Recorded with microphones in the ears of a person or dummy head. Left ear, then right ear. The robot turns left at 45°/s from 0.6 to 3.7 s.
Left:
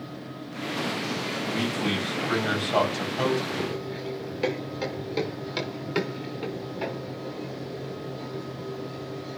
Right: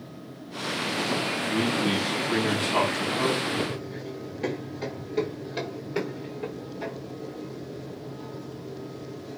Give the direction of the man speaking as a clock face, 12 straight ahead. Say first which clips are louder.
Right 2 dB; 7 o'clock.